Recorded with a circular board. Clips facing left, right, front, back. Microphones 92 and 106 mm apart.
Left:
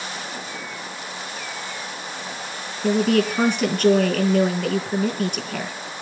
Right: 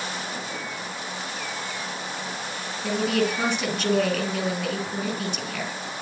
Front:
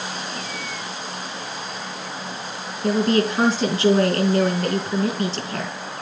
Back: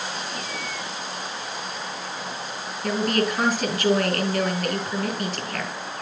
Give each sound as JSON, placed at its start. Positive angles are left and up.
{"t": 2.8, "sound": "a woman speaking", "azimuth_deg": 60, "distance_m": 3.5}